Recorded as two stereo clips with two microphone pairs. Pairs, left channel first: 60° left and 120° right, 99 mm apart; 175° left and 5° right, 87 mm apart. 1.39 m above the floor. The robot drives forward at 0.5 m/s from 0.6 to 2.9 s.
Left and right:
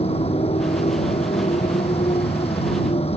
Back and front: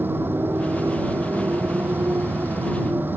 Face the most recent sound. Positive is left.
turn(degrees=60)